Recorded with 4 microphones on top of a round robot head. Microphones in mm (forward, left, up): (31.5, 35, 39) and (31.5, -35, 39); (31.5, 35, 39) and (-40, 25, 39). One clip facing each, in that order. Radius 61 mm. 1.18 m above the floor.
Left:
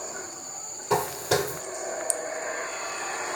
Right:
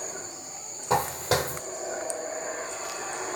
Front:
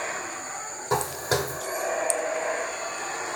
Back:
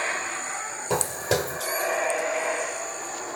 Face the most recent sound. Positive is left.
turn(degrees=-160)